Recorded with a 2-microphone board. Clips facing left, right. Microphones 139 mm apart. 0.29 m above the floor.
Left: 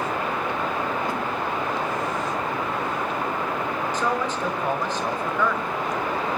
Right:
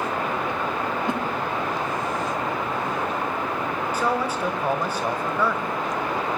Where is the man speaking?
10° right (ahead or behind), 1.7 m.